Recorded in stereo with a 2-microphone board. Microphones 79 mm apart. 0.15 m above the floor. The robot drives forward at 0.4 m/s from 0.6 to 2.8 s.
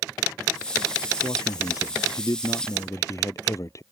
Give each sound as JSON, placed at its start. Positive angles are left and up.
{"t": 1.2, "sound": "a man speaking", "side_deg": 50}